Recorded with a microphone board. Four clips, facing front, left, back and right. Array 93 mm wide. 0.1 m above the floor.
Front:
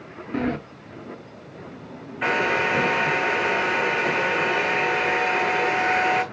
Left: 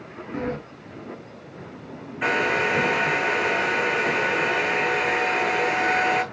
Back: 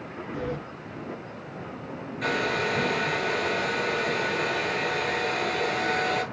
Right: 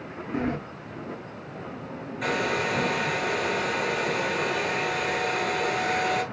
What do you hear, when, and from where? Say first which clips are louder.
0.3 s a sliding door: even, front 7 dB; 5° right, 1.6 m
2.2 s a hair dryer: left 4 dB, front 5 dB; 40° left, 1.6 m